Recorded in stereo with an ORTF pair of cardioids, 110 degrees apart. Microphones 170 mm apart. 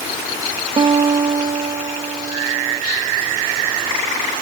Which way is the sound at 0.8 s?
30° right.